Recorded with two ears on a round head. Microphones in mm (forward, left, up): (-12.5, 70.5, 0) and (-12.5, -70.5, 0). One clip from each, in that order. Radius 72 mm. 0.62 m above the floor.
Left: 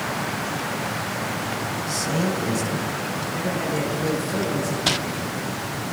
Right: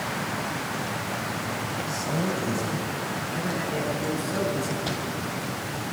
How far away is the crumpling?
About 0.7 m.